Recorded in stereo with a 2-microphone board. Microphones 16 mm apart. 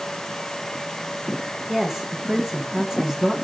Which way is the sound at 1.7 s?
30° right (ahead or behind).